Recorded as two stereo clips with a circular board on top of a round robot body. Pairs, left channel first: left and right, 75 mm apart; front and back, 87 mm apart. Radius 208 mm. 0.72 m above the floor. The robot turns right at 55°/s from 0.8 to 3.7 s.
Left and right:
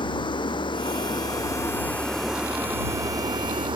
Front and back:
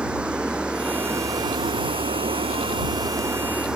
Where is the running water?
100° left; by 3.8 s 100° right.